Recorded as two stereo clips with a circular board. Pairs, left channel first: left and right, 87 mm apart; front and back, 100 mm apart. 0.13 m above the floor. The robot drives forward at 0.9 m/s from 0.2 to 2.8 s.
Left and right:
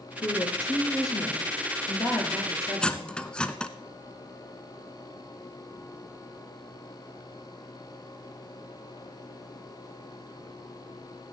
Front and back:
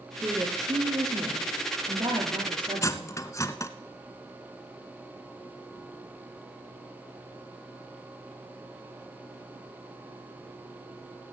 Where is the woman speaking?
120° left, 3 m; by 3.1 s 150° left, 4.5 m.